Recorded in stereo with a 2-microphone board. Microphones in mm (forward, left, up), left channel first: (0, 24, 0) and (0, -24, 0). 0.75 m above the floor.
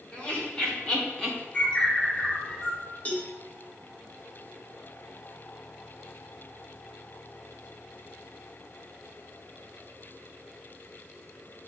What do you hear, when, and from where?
0.1 s laughter: 30° left (ahead or behind), 3 m; by 1.4 s 15° left (ahead or behind), 2 m
1.5 s a bird: 30° left (ahead or behind), 2 m
3.0 s a cowbell: 30° left (ahead or behind), 1.2 m